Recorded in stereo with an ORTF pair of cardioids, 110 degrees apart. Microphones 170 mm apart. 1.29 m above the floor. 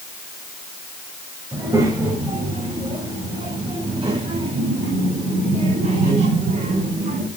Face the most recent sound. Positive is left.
turn(degrees=-40)